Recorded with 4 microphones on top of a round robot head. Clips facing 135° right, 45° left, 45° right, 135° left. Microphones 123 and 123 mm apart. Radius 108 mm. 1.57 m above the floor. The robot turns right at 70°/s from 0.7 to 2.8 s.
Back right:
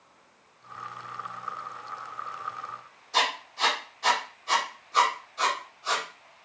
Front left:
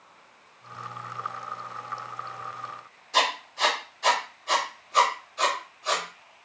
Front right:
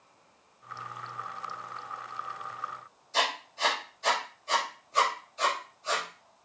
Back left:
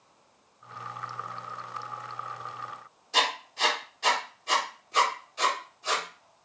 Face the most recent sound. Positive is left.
turn(degrees=135)